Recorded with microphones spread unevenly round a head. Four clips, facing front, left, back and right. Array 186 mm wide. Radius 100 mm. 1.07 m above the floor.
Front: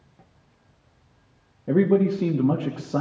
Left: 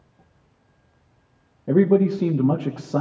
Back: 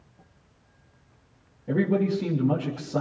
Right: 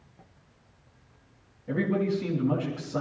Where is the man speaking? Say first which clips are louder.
Left 10 dB, front 5 dB; 60° left, 1.8 m.